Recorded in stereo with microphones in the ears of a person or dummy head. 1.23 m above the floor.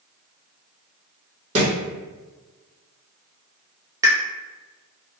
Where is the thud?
40° right (ahead or behind), 1.6 m.